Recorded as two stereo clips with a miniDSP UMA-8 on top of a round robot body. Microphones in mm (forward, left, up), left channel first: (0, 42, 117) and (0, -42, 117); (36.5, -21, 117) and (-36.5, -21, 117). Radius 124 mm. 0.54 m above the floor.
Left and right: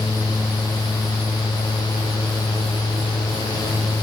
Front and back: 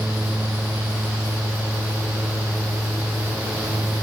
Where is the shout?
I don't hear a shout.